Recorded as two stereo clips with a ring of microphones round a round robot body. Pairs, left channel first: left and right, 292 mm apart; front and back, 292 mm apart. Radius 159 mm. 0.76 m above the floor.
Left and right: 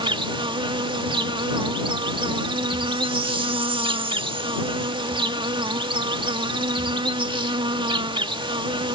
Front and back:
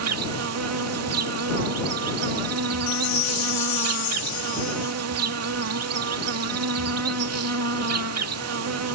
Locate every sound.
0.0 s an insect: 160° right
2.9 s a chime: 15° right